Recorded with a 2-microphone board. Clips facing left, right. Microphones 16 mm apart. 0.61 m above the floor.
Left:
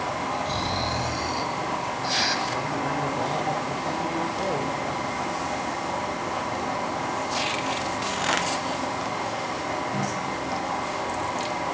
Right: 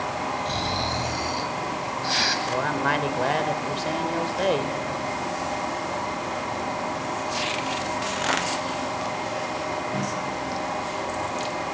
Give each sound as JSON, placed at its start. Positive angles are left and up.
{"t": 0.5, "sound": "snoring", "side_deg": -15, "distance_m": 1.6}
{"t": 2.5, "sound": "a man speaking", "side_deg": -60, "distance_m": 2.0}